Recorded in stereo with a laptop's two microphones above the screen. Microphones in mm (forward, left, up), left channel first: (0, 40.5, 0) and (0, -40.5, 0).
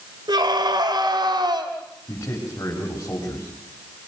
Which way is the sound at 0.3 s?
60° right (ahead or behind).